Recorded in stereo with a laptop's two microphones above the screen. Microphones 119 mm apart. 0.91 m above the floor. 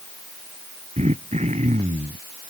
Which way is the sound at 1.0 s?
70° right (ahead or behind).